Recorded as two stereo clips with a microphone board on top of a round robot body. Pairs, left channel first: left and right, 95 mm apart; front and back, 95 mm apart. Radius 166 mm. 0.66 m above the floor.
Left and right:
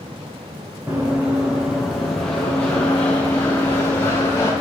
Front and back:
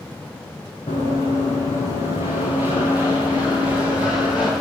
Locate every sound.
0.9 s running footsteps: 25° right, 3 m; by 4.5 s 30° left, 5.5 m